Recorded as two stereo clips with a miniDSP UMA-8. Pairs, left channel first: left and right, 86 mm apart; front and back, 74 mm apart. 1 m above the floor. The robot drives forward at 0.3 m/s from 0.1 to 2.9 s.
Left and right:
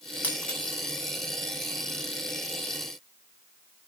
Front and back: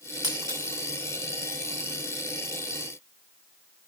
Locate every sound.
0.2 s breaking glass: 160° left, 4.5 m